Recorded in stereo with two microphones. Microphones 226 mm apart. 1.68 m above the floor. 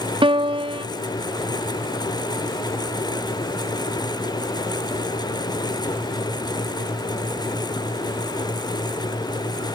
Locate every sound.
0.2 s a piano: 25° right (ahead or behind)